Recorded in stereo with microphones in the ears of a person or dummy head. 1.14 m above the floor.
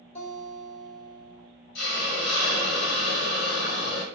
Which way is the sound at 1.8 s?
60° left (ahead or behind).